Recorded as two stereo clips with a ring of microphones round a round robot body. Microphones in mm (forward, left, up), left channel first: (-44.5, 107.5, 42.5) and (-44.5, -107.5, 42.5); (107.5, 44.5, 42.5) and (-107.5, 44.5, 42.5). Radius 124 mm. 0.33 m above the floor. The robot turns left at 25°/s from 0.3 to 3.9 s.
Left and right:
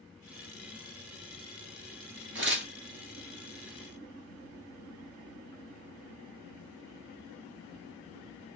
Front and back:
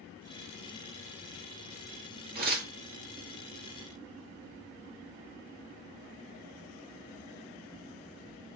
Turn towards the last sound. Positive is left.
turn(degrees=-160)